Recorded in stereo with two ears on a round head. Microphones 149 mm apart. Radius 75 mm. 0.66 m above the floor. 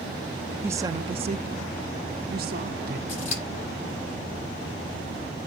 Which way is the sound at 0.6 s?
10° right (ahead or behind).